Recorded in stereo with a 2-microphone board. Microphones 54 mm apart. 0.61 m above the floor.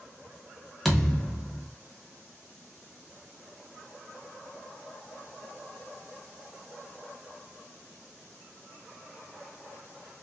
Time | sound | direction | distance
0.8 | a thud | centre (ahead or behind) | 0.9 m